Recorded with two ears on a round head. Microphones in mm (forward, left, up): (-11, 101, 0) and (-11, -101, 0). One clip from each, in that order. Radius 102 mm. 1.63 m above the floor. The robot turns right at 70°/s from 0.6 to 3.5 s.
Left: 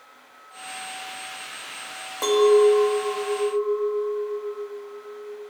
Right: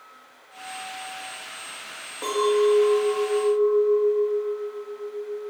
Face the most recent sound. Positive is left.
turn(degrees=-155)